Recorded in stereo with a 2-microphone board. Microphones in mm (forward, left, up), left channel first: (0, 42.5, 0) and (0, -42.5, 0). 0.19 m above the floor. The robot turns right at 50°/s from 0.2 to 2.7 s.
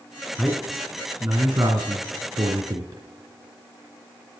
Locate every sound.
0.4 s a man speaking: 5° right (ahead or behind), 2 m; by 3.0 s 45° right (ahead or behind), 2 m